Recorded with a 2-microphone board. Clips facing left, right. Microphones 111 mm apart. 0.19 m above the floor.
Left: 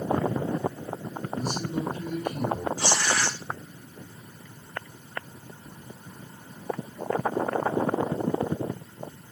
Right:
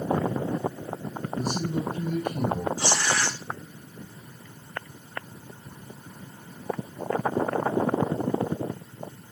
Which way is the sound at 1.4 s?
45° right (ahead or behind).